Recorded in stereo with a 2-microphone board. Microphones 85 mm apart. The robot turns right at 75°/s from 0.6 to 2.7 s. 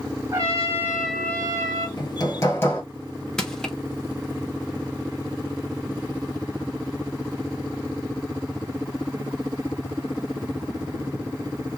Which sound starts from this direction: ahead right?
A trumpet, at 0.3 s.